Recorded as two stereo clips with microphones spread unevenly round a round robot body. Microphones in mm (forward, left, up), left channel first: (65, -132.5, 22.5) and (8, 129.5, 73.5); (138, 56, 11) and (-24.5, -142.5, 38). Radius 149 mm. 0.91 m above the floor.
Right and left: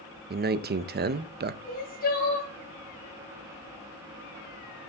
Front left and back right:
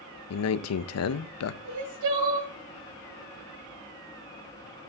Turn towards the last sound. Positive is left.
turn(degrees=-140)